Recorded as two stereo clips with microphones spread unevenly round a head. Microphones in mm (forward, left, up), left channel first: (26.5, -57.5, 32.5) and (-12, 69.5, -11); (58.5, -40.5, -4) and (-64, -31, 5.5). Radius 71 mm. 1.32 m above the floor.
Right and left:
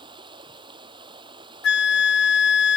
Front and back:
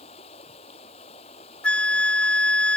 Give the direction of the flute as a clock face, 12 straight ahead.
3 o'clock.